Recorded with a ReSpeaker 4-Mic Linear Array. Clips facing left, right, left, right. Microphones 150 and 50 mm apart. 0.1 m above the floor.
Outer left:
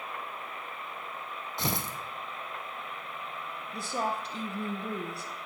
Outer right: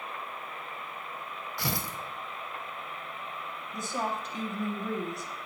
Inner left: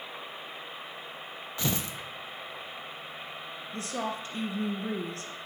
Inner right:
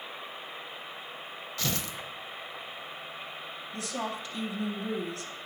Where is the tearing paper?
20° left (ahead or behind), 0.8 m.